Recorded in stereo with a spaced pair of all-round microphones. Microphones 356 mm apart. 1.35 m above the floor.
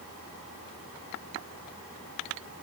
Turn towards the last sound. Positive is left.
No sound to turn to.